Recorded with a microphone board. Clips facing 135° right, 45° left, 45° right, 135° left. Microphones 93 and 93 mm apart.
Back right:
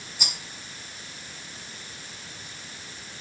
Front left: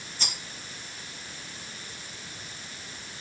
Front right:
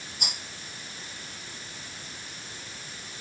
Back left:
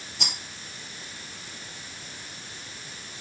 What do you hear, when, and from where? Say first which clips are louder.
0.2 s a rattle: even, back left 2 dB; 145° left, 2.5 m